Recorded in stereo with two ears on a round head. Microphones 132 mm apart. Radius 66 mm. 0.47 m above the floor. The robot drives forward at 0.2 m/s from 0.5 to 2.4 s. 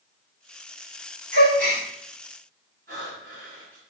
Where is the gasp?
55° right (ahead or behind), 2.5 m.